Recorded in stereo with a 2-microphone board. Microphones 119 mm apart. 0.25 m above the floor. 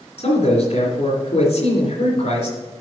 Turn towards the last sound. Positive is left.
turn(degrees=55)  # may be behind; listen again after turning